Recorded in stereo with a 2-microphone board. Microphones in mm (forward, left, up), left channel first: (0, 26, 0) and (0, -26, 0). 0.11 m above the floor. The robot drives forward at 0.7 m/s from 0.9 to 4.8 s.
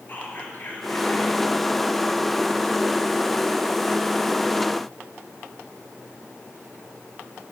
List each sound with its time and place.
0.1 s whispering: 40° left (ahead or behind), 1.6 m